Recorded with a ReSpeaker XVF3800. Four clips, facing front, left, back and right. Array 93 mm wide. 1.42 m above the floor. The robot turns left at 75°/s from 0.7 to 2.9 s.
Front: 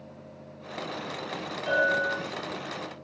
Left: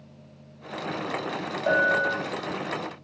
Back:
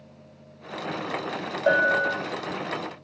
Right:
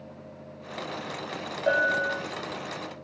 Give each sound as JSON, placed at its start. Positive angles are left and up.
{"t": 1.7, "sound": "a bell", "azimuth_deg": -175, "distance_m": 4.0}